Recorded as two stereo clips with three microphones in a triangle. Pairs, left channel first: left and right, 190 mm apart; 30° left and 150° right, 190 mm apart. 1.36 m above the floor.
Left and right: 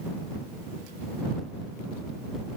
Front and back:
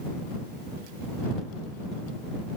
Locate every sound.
Only background noise.